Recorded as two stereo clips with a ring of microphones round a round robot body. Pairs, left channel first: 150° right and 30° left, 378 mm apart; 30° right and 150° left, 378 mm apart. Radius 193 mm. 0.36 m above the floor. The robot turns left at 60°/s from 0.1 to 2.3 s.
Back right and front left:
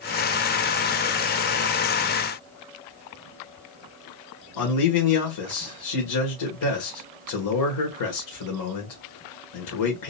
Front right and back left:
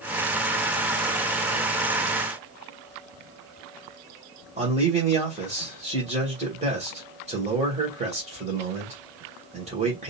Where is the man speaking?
140° right, 1.6 m.